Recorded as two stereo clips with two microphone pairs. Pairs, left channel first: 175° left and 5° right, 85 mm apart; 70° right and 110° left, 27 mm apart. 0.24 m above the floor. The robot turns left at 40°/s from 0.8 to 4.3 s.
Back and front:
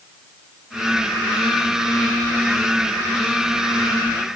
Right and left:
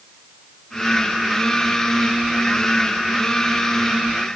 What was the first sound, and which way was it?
Only background noise.